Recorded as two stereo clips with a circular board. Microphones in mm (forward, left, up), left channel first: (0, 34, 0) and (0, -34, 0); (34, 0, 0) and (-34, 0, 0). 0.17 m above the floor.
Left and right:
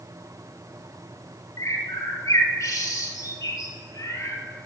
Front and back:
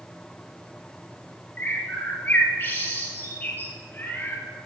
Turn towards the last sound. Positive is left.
turn(degrees=60)